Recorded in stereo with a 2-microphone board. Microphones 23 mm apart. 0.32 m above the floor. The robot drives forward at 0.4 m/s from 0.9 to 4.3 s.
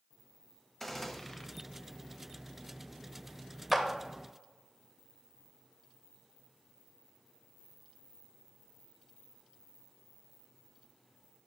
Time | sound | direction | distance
0.8 | a gunshot | 10° left (ahead or behind) | 0.6 m
3.7 | a clap | 5° right (ahead or behind) | 0.8 m